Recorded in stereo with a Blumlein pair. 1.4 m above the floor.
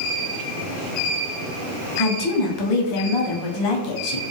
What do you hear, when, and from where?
2.0 s a woman speaking: 40° left, 0.7 m